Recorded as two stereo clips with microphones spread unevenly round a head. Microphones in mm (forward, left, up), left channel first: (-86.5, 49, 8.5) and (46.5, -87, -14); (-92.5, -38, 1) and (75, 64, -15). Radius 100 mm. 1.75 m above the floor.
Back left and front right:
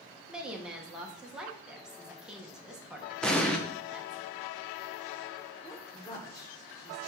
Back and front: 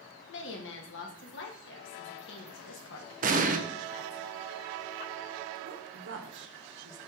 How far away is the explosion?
About 0.8 m.